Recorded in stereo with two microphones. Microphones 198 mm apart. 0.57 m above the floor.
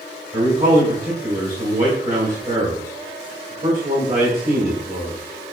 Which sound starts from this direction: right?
A man speaking, at 0.3 s.